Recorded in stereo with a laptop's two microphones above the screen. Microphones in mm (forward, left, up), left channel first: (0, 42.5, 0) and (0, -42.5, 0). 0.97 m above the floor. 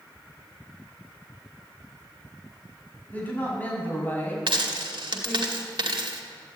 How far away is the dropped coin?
About 2 m.